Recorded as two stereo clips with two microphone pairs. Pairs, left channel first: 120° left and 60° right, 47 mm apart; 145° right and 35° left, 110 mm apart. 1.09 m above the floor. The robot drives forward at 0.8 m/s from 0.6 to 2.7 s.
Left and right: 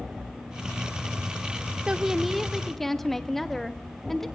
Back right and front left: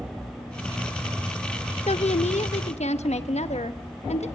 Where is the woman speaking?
125° right, 0.6 m; by 4.3 s 155° right, 1.2 m.